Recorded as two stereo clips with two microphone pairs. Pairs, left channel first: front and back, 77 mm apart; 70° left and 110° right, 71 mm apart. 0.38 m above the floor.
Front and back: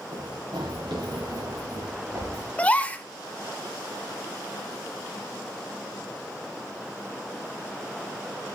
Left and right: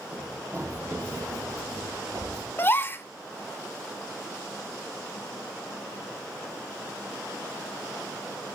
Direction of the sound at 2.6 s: 60° left.